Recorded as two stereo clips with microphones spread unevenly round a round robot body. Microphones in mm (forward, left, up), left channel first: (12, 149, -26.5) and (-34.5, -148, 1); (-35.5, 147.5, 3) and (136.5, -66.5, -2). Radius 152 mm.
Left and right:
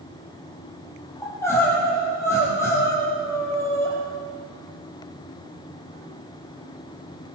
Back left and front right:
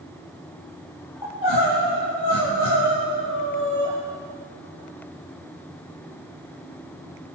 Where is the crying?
165° left, 8 m.